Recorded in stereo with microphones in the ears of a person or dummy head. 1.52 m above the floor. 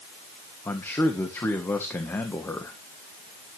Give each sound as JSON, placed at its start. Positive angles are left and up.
{"t": 0.7, "sound": "a man speaking", "side_deg": 10, "distance_m": 1.4}